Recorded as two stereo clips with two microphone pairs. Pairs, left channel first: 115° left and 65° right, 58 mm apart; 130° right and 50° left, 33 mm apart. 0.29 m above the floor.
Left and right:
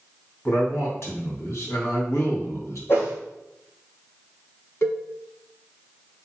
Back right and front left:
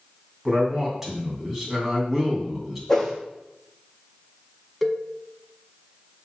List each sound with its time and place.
0.5 s a man speaking: 135° left, 3 m
2.9 s a whoosh: 155° left, 3 m
4.8 s a cowbell: 145° left, 1.2 m